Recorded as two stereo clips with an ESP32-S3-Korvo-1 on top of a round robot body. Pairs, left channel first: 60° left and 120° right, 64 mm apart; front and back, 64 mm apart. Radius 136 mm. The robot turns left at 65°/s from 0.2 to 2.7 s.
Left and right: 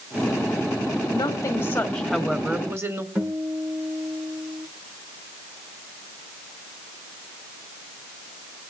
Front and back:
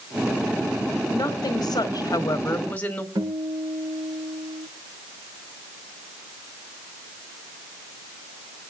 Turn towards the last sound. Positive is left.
turn(degrees=180)